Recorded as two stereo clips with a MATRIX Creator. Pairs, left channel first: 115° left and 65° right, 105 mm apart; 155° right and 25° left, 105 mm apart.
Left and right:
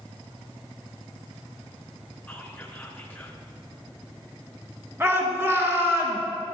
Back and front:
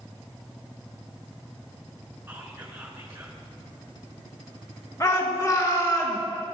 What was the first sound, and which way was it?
Whispering, 60° left.